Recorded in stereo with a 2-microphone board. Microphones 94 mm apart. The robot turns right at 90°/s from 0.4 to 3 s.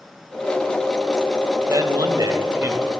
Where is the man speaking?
125° right, 1.1 m; by 2.9 s 15° right, 1.1 m.